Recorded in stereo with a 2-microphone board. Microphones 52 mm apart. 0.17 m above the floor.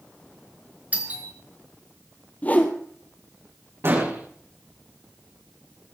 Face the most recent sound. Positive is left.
turn(degrees=-55)  # may be behind; listen again after turning